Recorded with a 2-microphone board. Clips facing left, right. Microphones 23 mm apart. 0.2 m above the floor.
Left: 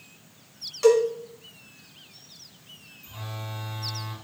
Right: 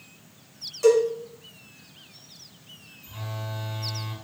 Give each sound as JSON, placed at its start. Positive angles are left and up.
{"t": 0.8, "sound": "a cowbell", "side_deg": 35, "distance_m": 1.3}
{"t": 3.0, "sound": "a phone buzzing", "side_deg": -20, "distance_m": 2.0}